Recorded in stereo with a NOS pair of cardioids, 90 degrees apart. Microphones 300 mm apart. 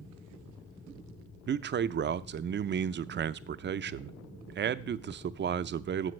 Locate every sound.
1.5 s a man speaking: 35° right, 0.5 m